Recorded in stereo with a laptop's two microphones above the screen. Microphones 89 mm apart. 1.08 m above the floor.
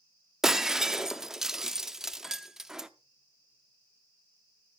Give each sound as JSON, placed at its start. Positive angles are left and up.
{"t": 0.4, "sound": "breaking glass", "side_deg": -5, "distance_m": 0.6}